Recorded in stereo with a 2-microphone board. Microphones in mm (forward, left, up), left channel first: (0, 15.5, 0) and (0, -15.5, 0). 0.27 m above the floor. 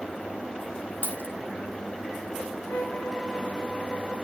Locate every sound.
1.0 s a dropped coin: 65° right (ahead or behind), 3 m
2.7 s a violin: 75° left (ahead or behind), 5 m